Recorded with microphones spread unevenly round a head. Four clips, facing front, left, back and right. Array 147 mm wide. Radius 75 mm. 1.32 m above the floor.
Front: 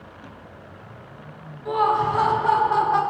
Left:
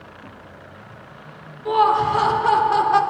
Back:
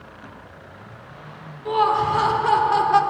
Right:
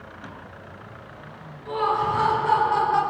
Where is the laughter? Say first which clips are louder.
Left 6 dB, back 1 dB; 120° left, 3.5 m; by 3.0 s 130° left, 3.5 m.